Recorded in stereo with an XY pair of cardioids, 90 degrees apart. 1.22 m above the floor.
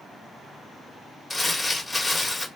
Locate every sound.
1.3 s crumpling: 15° left, 1.6 m